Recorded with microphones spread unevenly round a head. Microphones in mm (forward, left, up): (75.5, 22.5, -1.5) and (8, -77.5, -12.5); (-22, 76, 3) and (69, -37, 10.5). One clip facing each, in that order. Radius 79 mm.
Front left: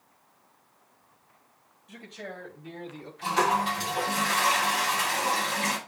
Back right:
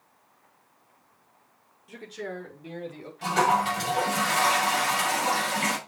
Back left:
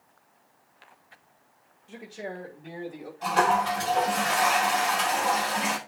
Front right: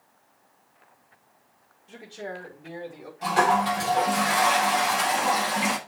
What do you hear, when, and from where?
1.9 s a man speaking: 145° right, 6.5 m; by 3.1 s 135° right, 5.5 m
3.2 s a toilet flushing: 125° right, 6.5 m